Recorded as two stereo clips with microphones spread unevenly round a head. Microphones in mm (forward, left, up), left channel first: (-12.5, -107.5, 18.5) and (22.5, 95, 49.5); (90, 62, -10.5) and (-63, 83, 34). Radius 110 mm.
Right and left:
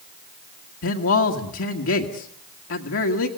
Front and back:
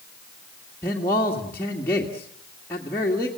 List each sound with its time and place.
0.8 s a man speaking: 85° right, 1.8 m